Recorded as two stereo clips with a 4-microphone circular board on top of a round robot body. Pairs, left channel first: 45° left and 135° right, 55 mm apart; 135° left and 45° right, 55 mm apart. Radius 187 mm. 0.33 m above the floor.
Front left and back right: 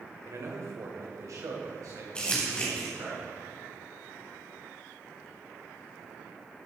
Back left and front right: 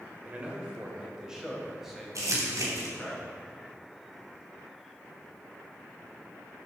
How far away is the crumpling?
About 2.5 m.